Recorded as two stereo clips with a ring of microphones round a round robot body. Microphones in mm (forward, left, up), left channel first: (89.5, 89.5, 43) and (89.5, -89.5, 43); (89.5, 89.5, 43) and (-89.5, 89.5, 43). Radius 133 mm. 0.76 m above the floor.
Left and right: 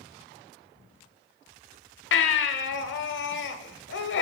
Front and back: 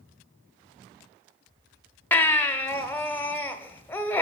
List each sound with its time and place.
2.1 s a baby crying: 80° left, 0.8 m